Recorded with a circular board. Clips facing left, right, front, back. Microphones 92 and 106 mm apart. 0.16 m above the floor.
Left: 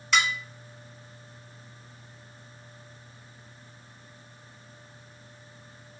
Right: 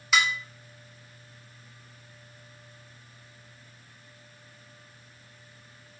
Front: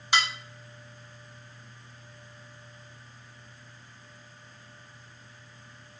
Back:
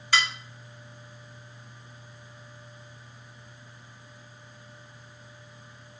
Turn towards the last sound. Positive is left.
turn(degrees=-15)